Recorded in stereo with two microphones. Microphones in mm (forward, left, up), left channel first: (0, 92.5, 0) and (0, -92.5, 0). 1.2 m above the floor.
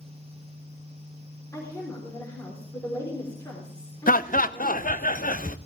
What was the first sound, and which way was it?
A woman speaking, 20° left (ahead or behind).